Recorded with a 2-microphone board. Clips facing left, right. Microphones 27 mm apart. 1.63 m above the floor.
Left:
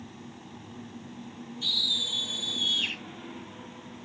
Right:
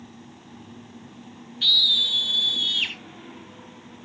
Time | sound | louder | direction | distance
1.6 | a scream | right 9 dB | 50° right (ahead or behind) | 1.6 m